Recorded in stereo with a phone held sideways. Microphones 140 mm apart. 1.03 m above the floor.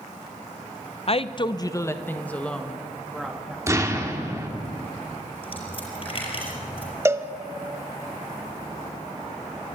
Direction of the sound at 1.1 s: 45° left (ahead or behind).